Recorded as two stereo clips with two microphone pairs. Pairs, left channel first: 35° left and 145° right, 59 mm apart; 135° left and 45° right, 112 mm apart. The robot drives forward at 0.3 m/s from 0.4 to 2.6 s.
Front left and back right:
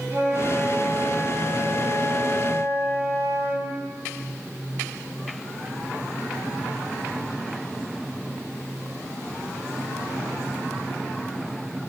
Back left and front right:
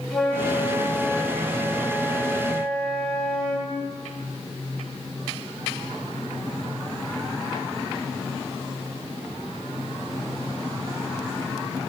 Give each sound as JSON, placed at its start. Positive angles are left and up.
{"t": 0.1, "sound": "a flute", "azimuth_deg": -145, "distance_m": 3.0}